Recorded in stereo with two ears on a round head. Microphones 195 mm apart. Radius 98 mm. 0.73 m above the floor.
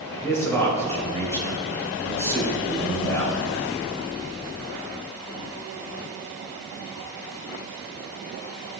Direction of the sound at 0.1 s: 15° left (ahead or behind).